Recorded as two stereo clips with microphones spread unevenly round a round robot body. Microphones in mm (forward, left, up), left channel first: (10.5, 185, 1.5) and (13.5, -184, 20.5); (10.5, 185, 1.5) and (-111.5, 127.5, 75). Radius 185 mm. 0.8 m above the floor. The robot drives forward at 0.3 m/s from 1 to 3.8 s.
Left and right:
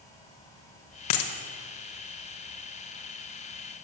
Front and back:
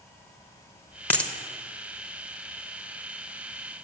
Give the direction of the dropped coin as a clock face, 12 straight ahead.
8 o'clock.